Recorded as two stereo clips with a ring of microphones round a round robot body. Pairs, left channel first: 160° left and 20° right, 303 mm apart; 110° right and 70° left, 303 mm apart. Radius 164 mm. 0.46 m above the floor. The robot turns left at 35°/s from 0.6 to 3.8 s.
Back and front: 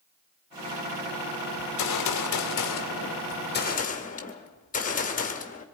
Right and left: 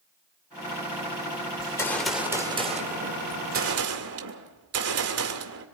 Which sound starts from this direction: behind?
A gunshot, at 1.6 s.